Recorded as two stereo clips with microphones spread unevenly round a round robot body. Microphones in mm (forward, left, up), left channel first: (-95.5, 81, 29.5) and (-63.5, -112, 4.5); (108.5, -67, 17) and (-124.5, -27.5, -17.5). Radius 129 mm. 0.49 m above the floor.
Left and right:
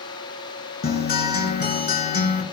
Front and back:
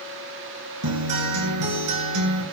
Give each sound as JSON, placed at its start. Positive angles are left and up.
{"t": 0.8, "sound": "a guitar", "azimuth_deg": 145, "distance_m": 2.5}